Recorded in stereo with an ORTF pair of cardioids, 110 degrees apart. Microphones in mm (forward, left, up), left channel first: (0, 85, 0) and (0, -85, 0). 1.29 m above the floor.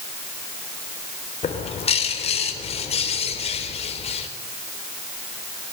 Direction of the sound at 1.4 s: 40° left.